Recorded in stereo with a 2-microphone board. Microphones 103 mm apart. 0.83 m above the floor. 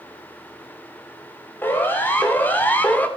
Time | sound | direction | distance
1.6 | a siren | 20° left (ahead or behind) | 4.5 m